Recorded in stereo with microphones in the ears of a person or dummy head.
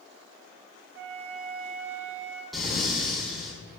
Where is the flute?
85° right, 4.5 m.